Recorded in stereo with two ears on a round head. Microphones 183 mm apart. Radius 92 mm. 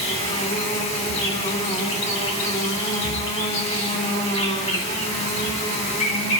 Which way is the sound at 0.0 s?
35° left (ahead or behind).